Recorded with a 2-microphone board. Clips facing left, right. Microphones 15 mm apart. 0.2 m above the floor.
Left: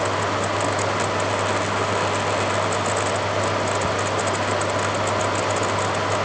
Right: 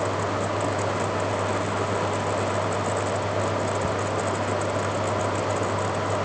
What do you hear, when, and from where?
Only background noise.